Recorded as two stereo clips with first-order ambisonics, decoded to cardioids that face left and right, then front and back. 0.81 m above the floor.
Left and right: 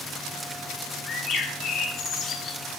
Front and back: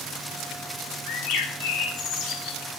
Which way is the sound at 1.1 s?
35° left.